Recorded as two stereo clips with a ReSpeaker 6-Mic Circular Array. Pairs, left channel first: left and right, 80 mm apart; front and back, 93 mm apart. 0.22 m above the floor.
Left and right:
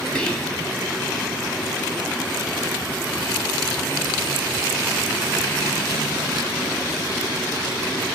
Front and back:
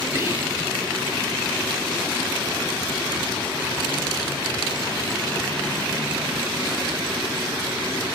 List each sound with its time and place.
0.1 s whispering: 155° left, 1.2 m